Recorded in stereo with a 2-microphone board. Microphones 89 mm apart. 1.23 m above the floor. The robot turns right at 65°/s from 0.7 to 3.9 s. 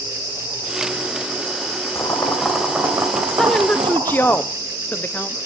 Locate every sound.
1.9 s boiling: 145° left, 2.5 m; by 4.4 s 90° right, 2.5 m
3.4 s a woman speaking: 5° left (ahead or behind), 0.6 m; by 5.4 s 20° left (ahead or behind), 0.6 m